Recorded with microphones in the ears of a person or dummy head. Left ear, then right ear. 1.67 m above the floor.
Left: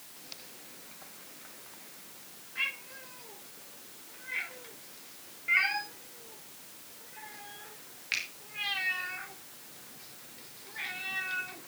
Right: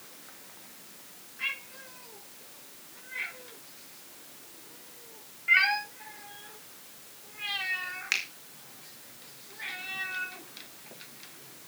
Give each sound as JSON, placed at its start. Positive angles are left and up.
{"t": 5.5, "sound": "a cat meowing", "side_deg": -30, "distance_m": 1.8}
{"t": 8.1, "sound": "a finger snap", "side_deg": -35, "distance_m": 2.0}